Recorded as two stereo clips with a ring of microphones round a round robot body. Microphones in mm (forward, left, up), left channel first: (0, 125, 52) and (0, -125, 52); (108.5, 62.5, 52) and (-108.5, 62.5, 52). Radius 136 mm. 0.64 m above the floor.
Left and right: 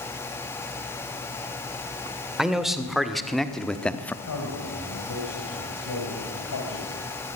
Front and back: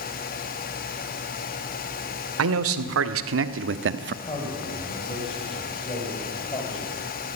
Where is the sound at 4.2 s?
65° left, 4.5 m.